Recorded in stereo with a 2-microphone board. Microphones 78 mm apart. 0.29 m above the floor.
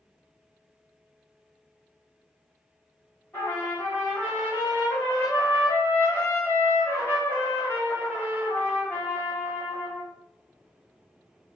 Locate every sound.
3.3 s a trumpet: 25° left (ahead or behind), 1.4 m